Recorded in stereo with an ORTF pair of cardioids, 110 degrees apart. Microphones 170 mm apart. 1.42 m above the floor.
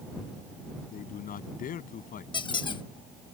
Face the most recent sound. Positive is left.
turn(degrees=30)